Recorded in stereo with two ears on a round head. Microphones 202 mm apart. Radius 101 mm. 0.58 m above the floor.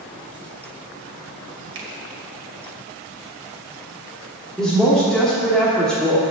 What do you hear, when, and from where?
1.8 s a finger snap: 55° right (ahead or behind), 1.7 m
4.6 s a woman speaking: 5° left (ahead or behind), 1.1 m